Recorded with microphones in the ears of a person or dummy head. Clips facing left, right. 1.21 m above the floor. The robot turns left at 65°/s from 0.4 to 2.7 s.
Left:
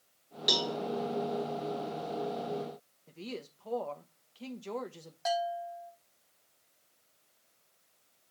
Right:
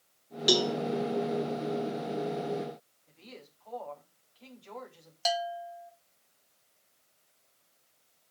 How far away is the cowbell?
About 1.3 m.